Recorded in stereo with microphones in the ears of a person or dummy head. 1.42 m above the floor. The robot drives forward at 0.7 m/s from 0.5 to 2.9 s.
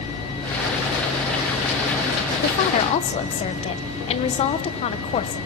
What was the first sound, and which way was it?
A woman speaking, 45° left (ahead or behind).